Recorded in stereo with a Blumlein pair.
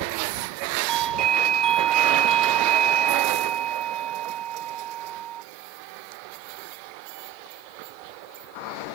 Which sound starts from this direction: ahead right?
A doorbell, at 0.9 s.